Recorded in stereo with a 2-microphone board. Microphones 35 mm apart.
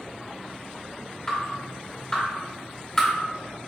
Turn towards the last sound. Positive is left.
turn(degrees=20)  # may be behind; listen again after turning